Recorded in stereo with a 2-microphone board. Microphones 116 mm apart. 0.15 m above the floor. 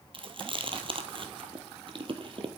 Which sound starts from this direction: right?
Chewing, at 0.1 s.